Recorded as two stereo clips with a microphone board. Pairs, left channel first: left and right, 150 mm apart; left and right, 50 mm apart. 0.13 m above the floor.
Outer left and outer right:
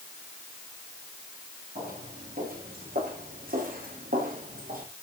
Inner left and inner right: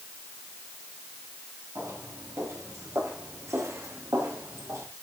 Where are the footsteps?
90° right, 10 m.